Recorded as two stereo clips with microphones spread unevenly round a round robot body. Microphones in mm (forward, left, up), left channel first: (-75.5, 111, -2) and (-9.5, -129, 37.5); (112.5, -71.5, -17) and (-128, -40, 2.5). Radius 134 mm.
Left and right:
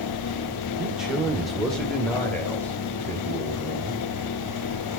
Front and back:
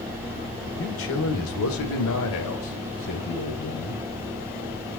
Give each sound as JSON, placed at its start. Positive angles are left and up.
{"t": 0.8, "sound": "a man speaking", "azimuth_deg": 15, "distance_m": 2.5}